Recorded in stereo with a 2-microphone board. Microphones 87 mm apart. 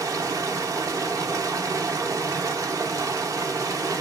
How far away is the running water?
About 0.7 m.